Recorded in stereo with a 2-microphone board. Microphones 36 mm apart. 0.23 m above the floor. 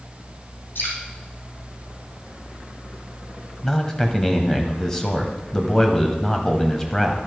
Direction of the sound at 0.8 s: 75° left (ahead or behind).